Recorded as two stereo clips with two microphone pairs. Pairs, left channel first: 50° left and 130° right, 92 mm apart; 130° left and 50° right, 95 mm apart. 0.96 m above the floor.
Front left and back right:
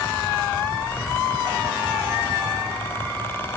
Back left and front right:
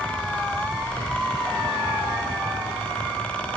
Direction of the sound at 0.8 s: 145° left.